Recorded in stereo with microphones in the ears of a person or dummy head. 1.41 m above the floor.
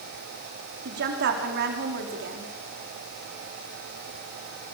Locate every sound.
0.8 s a woman speaking: 60° right (ahead or behind), 4 m